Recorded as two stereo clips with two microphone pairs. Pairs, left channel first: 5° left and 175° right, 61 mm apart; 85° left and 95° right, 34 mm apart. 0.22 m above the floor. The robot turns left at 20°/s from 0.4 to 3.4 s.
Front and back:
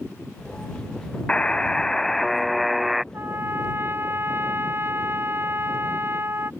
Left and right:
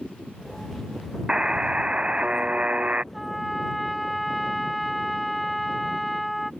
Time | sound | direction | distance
1.3 | a buzzer | 50° right | ?
3.1 | a trumpet | 175° left | ?